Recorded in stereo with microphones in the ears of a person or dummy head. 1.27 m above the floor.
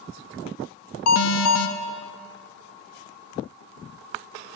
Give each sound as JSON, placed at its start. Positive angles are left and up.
{"t": 1.1, "sound": "an alarm", "side_deg": 90, "distance_m": 0.8}